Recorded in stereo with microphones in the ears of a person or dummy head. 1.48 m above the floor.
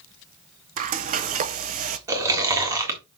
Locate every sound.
0.8 s frying: 40° right (ahead or behind), 0.8 m
2.1 s chewing: 20° right (ahead or behind), 1.7 m